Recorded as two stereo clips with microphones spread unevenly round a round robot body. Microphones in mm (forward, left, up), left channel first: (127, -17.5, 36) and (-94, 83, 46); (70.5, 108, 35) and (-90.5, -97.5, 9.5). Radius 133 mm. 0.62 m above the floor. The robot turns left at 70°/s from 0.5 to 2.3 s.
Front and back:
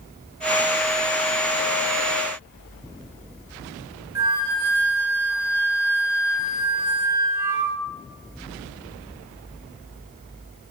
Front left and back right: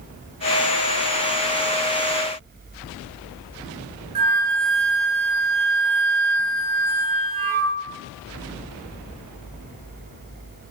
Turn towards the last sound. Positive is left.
turn(degrees=-125)